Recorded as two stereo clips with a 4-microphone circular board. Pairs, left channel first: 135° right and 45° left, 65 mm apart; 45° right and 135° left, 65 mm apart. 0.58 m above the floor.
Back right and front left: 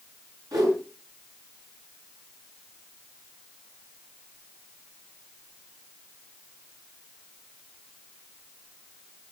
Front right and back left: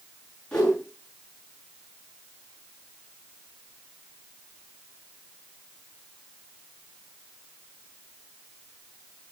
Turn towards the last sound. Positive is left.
turn(degrees=30)